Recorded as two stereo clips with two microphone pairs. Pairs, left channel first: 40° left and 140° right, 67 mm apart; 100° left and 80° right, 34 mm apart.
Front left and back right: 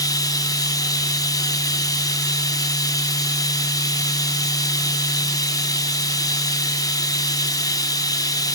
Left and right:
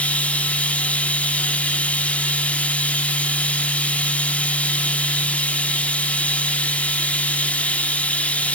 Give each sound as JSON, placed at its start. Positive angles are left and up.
{"t": 0.0, "sound": "running water", "azimuth_deg": 55, "distance_m": 1.0}